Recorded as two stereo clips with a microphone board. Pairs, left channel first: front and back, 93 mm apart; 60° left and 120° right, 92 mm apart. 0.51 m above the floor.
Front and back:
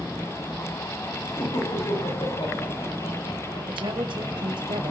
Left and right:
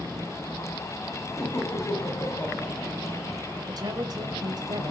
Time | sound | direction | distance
1.4 | laughter | straight ahead | 3.5 m
3.7 | a woman speaking | 160° right | 2 m